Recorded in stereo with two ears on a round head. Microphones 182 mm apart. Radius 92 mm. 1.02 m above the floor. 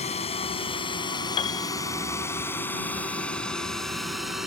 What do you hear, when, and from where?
0.0 s a drone: 35° left (ahead or behind); by 4.5 s 5° right (ahead or behind)
1.4 s a piano: 25° left (ahead or behind)